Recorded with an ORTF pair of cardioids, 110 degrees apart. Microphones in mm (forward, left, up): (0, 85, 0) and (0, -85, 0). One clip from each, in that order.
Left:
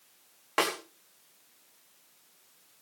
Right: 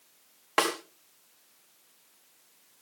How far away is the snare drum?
About 4.5 m.